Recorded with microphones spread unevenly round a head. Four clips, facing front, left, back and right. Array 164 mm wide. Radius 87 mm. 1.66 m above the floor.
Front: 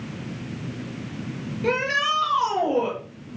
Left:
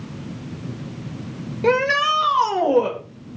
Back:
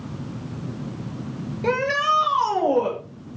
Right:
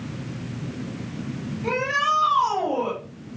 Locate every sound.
1.6 s a shout: 95° left, 8 m